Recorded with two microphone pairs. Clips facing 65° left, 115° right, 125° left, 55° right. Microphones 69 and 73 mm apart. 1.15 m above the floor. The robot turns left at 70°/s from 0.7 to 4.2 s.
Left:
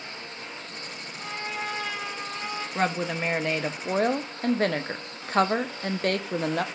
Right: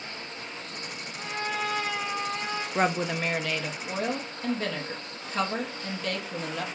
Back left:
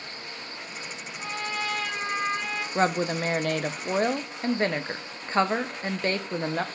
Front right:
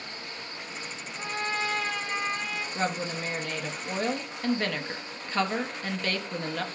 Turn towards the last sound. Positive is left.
turn(degrees=65)